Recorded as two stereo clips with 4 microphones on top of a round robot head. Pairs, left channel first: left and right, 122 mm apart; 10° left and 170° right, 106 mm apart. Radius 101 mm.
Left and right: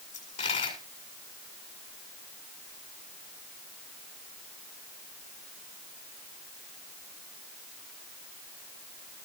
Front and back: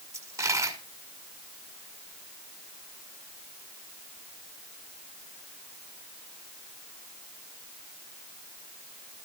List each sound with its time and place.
0.1 s a dropped coin: 135° left, 6 m